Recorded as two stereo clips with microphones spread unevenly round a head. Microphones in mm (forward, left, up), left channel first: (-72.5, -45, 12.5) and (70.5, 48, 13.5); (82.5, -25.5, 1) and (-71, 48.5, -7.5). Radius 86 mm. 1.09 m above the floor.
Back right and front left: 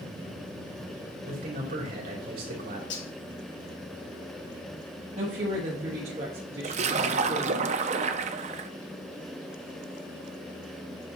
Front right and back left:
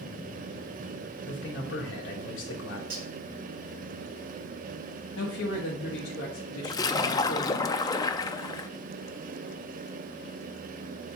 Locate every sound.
1.2 s a man speaking: 5° right, 3 m
2.9 s cutlery clinking: 165° right, 4 m
5.2 s a woman speaking: 20° right, 1.4 m
6.6 s a splash: 25° left, 0.5 m